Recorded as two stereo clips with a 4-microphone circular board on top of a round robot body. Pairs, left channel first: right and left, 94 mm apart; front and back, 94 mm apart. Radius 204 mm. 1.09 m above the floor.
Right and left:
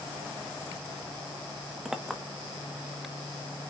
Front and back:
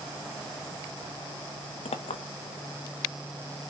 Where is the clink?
5° left, 1.3 m.